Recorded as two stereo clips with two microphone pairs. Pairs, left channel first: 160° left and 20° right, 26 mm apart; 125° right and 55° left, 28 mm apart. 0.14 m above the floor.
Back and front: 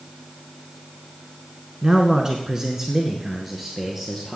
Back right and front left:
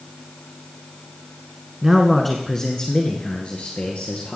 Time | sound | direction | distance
1.8 | a man speaking | 5° right | 1.2 m